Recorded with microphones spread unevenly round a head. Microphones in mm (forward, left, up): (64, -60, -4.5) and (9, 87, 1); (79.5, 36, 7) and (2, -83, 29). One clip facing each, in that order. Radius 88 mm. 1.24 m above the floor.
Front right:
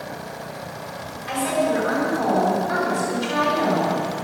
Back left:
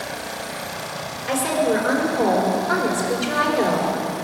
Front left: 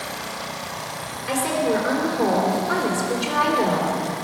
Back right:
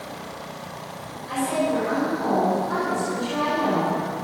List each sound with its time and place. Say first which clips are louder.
1.3 s a woman speaking: back left 1 dB, front left 2 dB; 75° left, 4 m